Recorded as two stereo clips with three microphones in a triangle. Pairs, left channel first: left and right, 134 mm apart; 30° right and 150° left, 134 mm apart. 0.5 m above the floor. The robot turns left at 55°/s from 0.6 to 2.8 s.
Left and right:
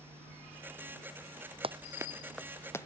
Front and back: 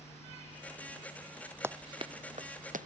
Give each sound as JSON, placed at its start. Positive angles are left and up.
{"t": 1.6, "sound": "running footsteps", "azimuth_deg": -135}